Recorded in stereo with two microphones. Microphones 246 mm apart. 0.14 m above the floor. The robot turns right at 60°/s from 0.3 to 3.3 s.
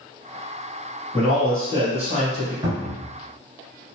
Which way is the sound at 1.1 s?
175° left.